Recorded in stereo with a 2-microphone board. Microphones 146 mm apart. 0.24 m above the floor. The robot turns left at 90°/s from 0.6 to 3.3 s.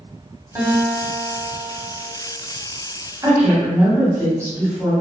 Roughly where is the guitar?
Right.